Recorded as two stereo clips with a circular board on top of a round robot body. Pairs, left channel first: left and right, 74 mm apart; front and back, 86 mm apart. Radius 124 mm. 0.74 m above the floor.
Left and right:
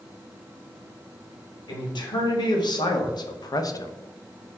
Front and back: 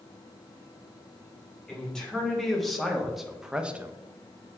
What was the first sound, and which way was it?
A man speaking, 85° left.